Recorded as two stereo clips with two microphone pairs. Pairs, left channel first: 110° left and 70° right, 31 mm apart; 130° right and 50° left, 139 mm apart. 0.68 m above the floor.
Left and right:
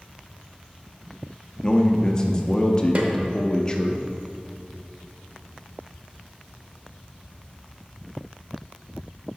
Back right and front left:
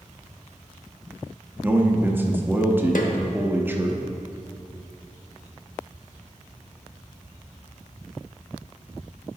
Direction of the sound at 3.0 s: 115° right.